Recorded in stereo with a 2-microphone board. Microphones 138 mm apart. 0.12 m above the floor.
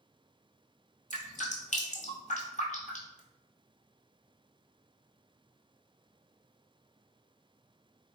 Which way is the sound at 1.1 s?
70° left (ahead or behind).